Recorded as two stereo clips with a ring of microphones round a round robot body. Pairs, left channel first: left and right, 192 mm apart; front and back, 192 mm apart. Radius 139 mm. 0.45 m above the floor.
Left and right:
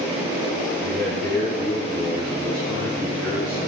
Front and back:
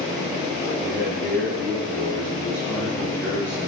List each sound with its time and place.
0.8 s a man speaking: 165° left, 8 m